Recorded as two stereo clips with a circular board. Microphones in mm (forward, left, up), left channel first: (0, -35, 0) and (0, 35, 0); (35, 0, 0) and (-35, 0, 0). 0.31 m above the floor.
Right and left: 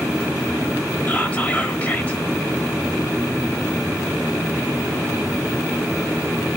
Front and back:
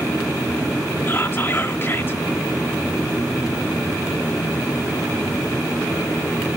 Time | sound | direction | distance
1.1 | whispering | 35° right | 1.0 m